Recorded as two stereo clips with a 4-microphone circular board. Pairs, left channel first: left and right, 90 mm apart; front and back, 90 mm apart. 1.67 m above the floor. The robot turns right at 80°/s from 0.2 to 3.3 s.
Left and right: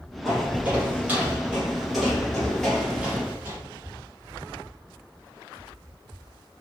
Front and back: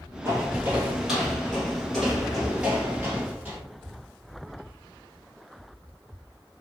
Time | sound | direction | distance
0.2 | footsteps | 175° right | 1.9 m